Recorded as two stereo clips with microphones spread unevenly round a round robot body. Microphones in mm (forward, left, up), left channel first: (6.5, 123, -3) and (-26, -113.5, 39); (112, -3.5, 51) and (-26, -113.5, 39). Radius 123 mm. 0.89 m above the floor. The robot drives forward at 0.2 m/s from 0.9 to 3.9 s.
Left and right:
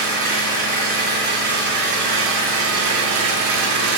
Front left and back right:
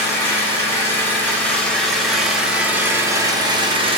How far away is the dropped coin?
No dropped coin in this recording.